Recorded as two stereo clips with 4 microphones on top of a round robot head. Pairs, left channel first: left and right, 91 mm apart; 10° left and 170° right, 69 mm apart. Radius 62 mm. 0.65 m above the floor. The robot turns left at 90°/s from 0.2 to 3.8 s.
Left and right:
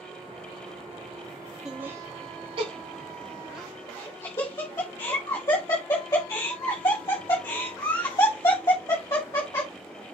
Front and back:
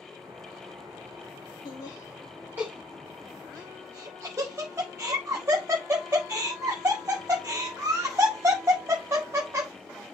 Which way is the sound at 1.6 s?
25° right.